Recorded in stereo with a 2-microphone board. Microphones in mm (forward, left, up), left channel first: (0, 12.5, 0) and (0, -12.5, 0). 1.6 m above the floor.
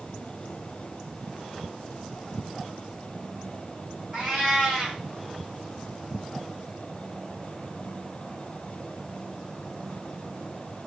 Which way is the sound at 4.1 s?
50° right (ahead or behind).